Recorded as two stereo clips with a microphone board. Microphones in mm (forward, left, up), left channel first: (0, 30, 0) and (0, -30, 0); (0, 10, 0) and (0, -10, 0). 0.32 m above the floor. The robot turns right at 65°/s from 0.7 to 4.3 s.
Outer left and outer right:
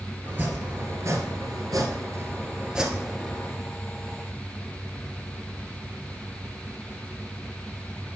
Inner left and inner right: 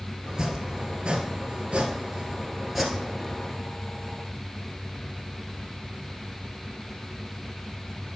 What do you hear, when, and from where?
0.2 s chopping: 150° right, 1.7 m; by 3.5 s 35° left, 1.7 m